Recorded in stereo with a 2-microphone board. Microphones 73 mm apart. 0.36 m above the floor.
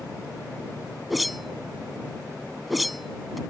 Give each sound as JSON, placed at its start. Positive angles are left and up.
{"t": 1.1, "sound": "a whoosh", "side_deg": 0}